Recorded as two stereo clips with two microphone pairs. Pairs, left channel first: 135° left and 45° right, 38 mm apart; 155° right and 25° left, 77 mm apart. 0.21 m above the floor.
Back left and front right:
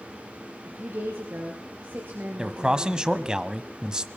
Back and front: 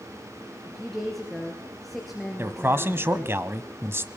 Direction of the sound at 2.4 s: 5° left.